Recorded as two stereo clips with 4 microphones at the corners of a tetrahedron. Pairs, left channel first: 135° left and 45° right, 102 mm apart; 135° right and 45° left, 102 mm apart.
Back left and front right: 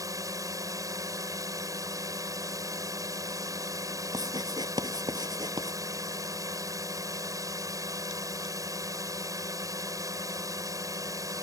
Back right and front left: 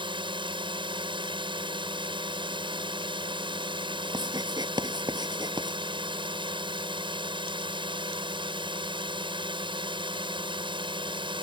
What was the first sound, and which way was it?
A drone, 10° left.